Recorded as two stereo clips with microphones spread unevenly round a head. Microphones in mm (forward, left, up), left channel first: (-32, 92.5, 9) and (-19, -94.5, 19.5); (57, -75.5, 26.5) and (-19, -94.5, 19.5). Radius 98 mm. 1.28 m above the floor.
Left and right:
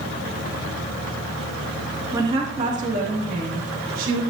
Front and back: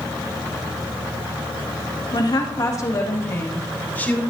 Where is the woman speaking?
10° right, 2 m; by 4.2 s 55° right, 3.5 m.